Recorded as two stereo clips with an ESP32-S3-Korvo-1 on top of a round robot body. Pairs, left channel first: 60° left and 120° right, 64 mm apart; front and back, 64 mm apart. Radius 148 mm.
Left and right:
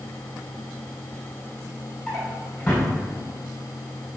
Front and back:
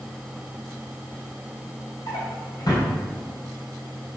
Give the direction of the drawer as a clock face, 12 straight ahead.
1 o'clock.